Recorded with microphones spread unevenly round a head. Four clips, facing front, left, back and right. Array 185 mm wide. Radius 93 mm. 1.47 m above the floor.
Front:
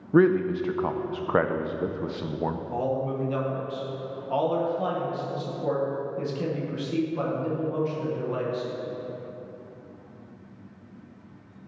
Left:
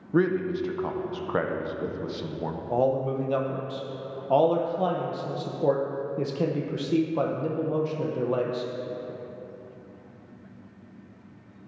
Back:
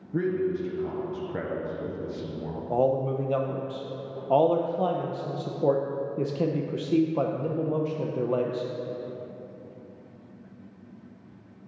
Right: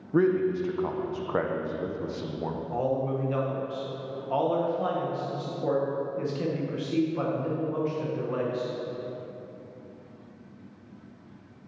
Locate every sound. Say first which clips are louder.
0.1 s a man speaking: right 1 dB, front 7 dB; straight ahead, 0.5 m
2.7 s a man speaking: left 4 dB, back 8 dB; 145° left, 0.8 m